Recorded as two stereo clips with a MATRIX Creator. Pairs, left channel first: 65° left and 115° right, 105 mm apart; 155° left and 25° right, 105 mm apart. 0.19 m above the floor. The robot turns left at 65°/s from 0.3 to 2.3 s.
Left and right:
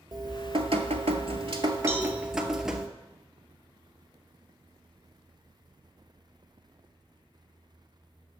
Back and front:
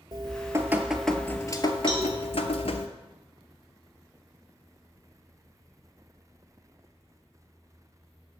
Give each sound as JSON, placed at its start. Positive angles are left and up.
{"t": 0.1, "sound": "dripping", "azimuth_deg": -65, "distance_m": 0.6}
{"t": 1.9, "sound": "a cowbell", "azimuth_deg": 40, "distance_m": 1.3}